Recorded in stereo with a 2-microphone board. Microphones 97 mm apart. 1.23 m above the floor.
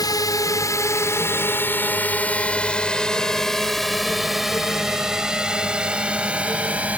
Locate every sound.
0.0 s a drone: 40° left (ahead or behind); by 7.0 s 15° right (ahead or behind)